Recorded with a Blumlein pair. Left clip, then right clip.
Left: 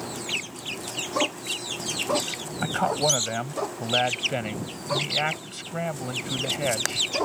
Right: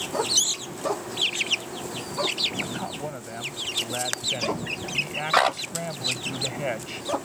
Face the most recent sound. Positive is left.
turn(degrees=5)